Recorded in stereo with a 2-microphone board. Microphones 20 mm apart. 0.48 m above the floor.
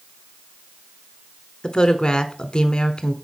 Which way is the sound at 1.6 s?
45° left (ahead or behind).